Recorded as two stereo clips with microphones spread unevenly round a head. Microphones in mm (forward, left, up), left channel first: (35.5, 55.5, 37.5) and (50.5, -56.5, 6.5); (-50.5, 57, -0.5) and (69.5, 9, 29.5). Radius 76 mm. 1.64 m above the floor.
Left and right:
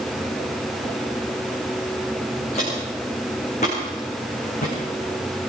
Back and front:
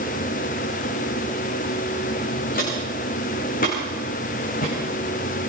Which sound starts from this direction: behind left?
Footsteps, at 2.5 s.